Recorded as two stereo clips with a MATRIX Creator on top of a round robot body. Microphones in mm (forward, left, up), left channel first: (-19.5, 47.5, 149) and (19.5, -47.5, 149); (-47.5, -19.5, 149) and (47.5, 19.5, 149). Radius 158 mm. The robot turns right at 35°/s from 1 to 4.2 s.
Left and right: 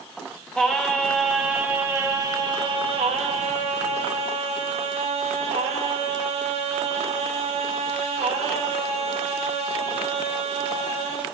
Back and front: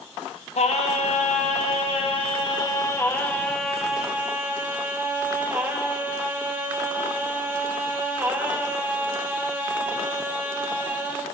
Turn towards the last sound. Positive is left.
turn(degrees=-50)